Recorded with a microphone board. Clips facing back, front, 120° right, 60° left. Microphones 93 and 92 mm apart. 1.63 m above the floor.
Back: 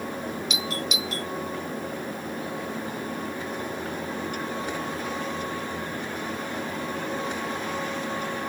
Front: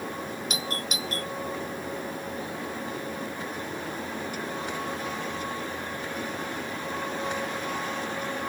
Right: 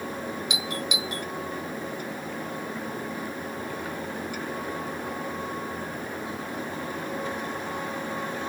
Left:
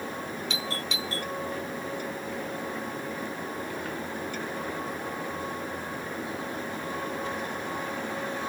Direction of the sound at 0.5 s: 45° right.